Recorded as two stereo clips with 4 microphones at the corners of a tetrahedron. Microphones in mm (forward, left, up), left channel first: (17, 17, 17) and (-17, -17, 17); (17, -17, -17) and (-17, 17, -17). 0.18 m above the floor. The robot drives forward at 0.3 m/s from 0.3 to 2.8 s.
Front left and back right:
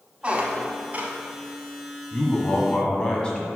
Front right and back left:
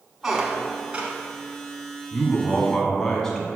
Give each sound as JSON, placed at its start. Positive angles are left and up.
{"t": 0.2, "sound": "a squeak", "azimuth_deg": -160, "distance_m": 0.7}
{"t": 2.1, "sound": "a man speaking", "azimuth_deg": 5, "distance_m": 1.2}